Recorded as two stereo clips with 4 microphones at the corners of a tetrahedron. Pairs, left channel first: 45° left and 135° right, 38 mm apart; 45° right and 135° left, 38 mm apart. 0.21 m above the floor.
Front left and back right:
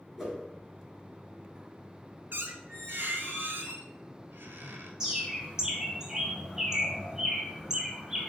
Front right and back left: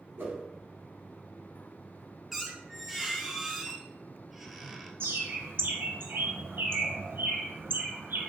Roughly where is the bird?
Behind left.